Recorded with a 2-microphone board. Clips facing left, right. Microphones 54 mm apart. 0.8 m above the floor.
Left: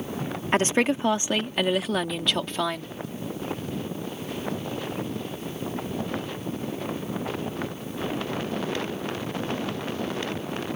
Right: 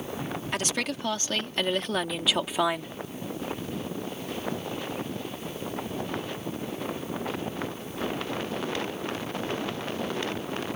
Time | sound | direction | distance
0.5 | a woman speaking | 35° left (ahead or behind) | ?